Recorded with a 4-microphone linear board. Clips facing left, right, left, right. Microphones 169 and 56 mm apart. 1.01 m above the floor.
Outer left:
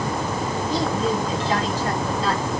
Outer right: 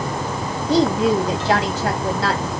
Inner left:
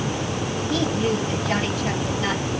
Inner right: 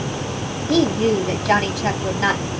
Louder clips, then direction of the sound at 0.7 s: Outer right 8 dB, inner right 7 dB; 80° right.